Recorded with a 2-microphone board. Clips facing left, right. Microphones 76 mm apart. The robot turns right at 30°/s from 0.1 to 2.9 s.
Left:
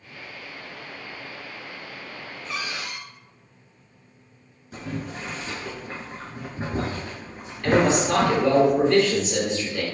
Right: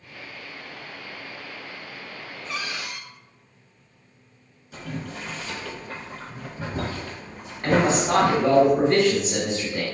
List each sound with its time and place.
2.5 s a cupboard door: 5° left (ahead or behind), 0.7 m; by 3.0 s centre (ahead or behind), 0.7 m
4.7 s boiling: 35° left (ahead or behind), 1.2 m
7.6 s a man speaking: 30° right (ahead or behind), 1.3 m